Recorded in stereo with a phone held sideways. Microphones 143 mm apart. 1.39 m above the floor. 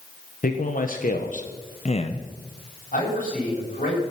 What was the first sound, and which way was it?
A man speaking, 75° left (ahead or behind).